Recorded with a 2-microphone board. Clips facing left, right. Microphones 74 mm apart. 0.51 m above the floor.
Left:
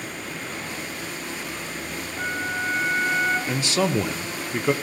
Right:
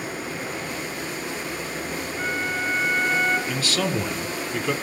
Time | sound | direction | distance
0.0 | running water | 10° right (ahead or behind) | 1.3 m
2.2 | a flute | 45° left (ahead or behind) | 2.5 m
3.5 | a man speaking | 20° left (ahead or behind) | 0.7 m